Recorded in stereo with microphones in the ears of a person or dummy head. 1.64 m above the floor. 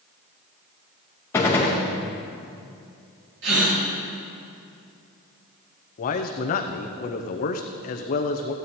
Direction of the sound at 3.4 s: 70° right (ahead or behind).